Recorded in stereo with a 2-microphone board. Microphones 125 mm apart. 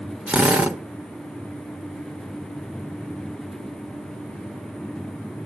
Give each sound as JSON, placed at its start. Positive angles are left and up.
{"t": 0.3, "sound": "a drill", "side_deg": -10, "distance_m": 1.2}